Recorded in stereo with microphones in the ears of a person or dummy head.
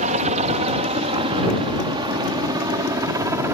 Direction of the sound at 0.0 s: 45° right (ahead or behind).